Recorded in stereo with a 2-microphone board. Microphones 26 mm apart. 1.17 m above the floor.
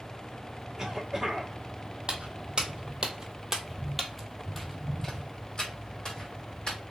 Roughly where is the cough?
Right.